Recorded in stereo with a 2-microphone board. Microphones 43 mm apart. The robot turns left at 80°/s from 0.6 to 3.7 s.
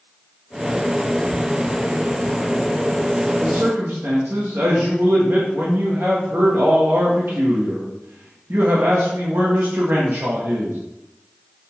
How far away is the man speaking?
About 1.8 m.